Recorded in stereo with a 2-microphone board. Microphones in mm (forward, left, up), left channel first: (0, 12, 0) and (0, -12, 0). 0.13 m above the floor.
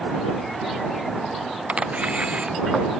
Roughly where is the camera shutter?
Right.